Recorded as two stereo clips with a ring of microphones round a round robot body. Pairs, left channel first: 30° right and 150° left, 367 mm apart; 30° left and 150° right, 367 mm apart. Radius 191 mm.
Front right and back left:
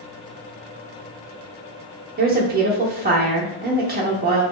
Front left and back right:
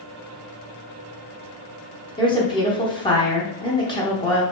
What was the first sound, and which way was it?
A woman speaking, 100° left.